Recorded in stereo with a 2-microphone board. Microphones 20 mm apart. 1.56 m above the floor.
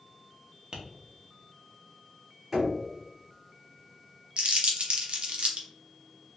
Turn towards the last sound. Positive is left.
turn(degrees=-65)  # may be behind; listen again after turning